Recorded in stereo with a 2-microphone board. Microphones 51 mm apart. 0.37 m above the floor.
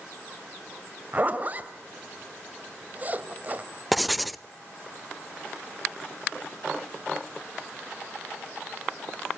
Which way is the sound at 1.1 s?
30° right (ahead or behind).